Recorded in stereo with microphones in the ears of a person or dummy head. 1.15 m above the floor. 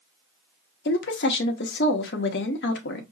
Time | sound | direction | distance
0.8 | a woman speaking | 55° left (ahead or behind) | 1.2 m